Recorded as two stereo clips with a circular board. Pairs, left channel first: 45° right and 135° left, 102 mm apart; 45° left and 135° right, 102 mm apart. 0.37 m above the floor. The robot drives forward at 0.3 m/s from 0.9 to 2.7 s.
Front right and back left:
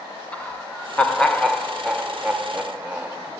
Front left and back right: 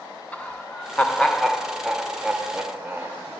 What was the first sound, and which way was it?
Laughter, straight ahead.